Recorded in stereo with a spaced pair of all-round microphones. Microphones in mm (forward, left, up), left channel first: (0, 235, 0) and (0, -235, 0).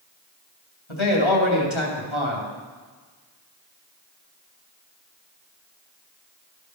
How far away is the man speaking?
About 2.5 m.